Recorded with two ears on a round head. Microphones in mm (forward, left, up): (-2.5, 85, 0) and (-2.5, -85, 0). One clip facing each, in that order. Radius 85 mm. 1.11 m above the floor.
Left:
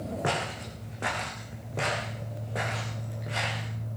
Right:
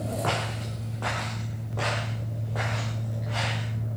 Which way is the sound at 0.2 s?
20° left (ahead or behind).